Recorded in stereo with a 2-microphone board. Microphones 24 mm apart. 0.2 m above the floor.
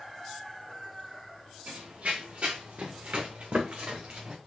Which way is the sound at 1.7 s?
80° right.